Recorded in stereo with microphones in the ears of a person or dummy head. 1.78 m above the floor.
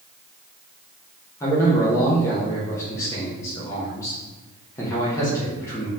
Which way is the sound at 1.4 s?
15° left (ahead or behind).